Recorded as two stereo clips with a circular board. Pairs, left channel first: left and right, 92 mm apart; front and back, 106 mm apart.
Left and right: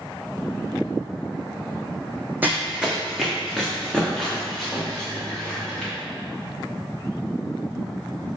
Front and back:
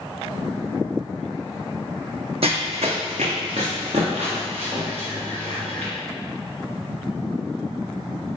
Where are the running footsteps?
160° right, 0.7 m; by 5.9 s 170° left, 3 m.